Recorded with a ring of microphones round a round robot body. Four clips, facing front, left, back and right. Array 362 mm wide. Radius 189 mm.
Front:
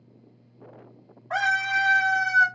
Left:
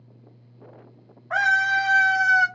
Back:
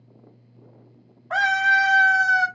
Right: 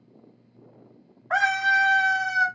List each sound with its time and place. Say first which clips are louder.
1.3 s a scream: left 1 dB, back 5 dB; 110° right, 1.3 m; by 2.5 s 145° left, 1.5 m